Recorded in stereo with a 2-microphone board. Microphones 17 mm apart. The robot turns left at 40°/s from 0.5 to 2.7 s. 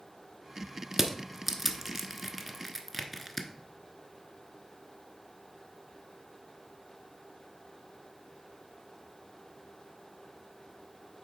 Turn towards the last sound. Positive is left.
turn(degrees=10)  # may be behind; listen again after turning